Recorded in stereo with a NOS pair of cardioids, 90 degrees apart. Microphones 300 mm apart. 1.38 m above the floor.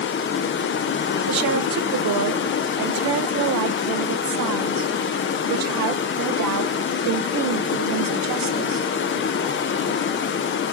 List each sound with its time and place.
0.0 s running water: 40° left, 0.7 m
1.3 s a woman speaking: 65° right, 0.9 m